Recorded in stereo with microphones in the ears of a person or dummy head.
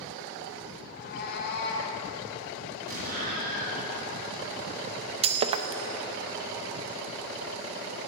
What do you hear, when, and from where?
0.9 s a cat meowing: 45° left (ahead or behind), 2 m; by 2.0 s 65° left (ahead or behind), 2.5 m
2.9 s an explosion: 50° right (ahead or behind), 4 m
5.2 s breaking glass: 30° right (ahead or behind), 0.7 m